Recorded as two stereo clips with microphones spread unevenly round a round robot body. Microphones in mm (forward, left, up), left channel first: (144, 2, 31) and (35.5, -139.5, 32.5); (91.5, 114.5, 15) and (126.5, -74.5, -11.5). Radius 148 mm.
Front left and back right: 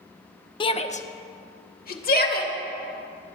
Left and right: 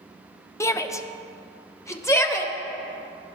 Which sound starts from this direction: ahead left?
A shout, at 0.6 s.